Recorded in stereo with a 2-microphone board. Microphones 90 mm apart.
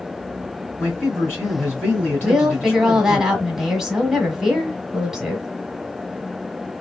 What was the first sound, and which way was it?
A man speaking, 25° left (ahead or behind).